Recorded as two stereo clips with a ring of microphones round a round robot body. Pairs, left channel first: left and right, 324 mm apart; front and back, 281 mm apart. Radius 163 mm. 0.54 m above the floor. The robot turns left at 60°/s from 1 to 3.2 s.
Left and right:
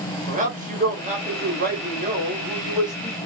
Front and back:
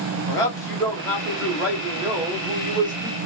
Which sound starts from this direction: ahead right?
A man speaking, at 0.3 s.